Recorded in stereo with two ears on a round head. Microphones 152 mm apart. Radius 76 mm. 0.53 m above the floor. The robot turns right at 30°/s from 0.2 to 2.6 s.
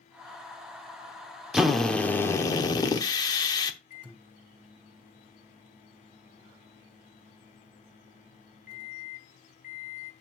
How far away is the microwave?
About 1.5 m.